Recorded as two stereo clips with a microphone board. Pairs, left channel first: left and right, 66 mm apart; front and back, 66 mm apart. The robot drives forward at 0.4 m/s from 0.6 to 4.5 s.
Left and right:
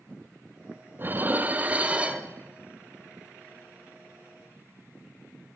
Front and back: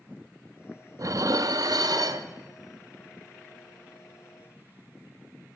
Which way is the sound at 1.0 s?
145° right.